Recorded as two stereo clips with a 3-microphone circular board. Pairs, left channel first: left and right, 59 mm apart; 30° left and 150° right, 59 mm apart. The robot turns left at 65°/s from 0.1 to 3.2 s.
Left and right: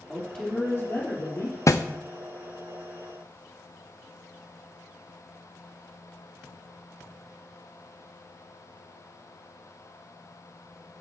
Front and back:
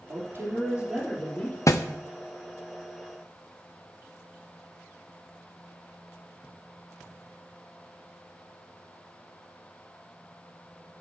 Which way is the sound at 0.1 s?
175° left.